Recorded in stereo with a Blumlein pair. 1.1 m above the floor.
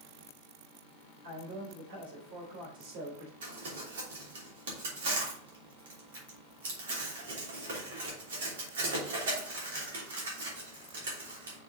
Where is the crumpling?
60° right, 3 m.